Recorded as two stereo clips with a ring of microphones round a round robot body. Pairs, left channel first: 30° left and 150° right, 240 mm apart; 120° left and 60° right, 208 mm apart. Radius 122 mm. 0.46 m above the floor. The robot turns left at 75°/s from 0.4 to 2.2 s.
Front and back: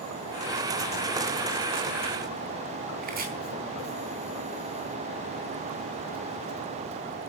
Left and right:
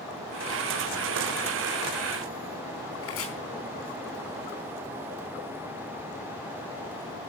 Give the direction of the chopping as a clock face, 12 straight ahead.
7 o'clock.